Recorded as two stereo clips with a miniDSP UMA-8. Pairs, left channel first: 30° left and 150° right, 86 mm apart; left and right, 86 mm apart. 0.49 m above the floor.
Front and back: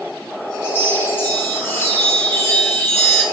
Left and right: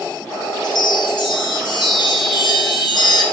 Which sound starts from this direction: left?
A chime, at 0.6 s.